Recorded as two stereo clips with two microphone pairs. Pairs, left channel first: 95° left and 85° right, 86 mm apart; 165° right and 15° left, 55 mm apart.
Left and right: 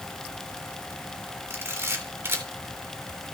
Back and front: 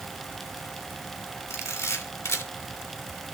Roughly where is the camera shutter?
Behind right.